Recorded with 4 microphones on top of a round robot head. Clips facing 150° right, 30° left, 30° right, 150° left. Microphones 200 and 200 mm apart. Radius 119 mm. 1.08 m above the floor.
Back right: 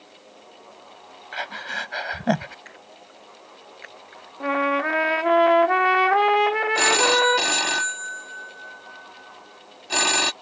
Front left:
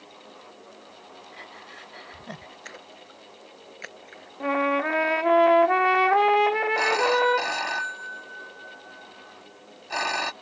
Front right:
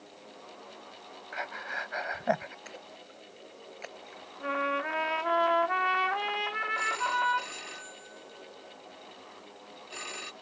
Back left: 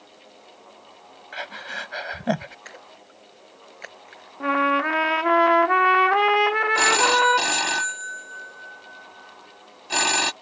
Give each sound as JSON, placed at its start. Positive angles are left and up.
{"t": 1.3, "sound": "breathing", "azimuth_deg": -160}
{"t": 2.6, "sound": "a splash", "azimuth_deg": 70}
{"t": 4.4, "sound": "a trumpet", "azimuth_deg": 125}
{"t": 6.8, "sound": "a phone ringing", "azimuth_deg": 160}